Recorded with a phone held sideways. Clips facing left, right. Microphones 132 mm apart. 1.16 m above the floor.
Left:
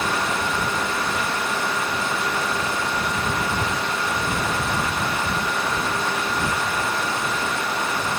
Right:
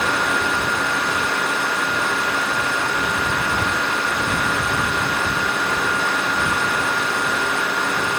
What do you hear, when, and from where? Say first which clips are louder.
0.0 s a fan: right 2 dB; 70° right (ahead or behind)